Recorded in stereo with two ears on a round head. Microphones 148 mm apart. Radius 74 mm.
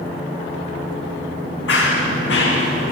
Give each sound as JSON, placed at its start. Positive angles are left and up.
{"t": 1.7, "sound": "running footsteps", "side_deg": 80, "distance_m": 5.5}